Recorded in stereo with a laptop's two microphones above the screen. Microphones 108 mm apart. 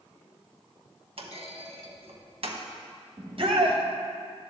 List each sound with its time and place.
1.2 s a clunk: 60° right (ahead or behind), 0.9 m
3.2 s a shout: 55° right (ahead or behind), 0.9 m